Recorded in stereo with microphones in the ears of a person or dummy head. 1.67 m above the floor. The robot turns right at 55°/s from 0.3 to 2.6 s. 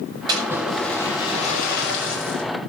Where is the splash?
20° right, 7 m; by 2.4 s 95° left, 7 m.